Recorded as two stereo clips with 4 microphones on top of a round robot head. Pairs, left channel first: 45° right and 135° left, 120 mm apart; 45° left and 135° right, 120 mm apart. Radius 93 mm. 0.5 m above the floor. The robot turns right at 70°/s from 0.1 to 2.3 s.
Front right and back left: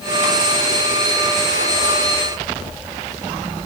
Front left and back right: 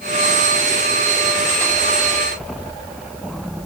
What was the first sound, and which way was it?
Only background noise.